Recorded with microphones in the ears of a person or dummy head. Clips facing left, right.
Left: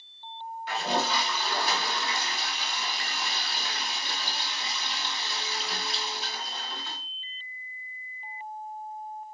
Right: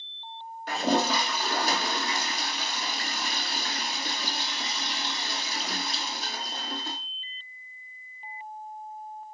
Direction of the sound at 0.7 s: 40° right (ahead or behind).